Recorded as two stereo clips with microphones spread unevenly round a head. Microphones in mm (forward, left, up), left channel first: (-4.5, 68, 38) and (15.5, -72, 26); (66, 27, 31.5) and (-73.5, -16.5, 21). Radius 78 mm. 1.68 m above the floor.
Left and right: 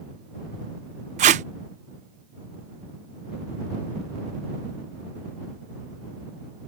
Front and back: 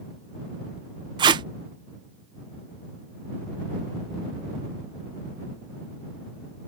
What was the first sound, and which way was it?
Tape being pulled, 110° right.